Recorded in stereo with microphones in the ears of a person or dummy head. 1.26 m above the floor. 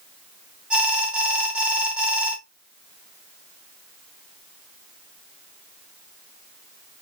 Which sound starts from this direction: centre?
An alarm, at 0.7 s.